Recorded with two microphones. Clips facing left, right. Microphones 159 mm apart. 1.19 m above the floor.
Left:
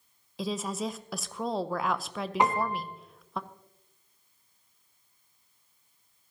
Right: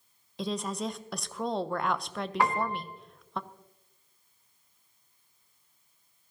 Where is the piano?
20° left (ahead or behind), 1.1 m.